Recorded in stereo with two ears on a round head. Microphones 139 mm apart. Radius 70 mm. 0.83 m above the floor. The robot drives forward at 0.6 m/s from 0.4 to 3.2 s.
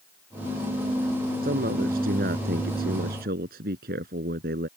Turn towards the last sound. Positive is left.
turn(degrees=-65)  # may be behind; listen again after turning